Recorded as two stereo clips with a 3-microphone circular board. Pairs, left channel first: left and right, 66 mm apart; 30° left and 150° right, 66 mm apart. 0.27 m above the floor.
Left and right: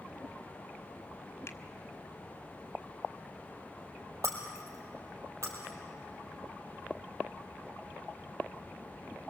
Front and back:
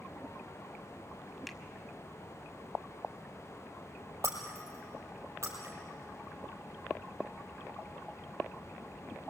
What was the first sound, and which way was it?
A finger snap, 120° left.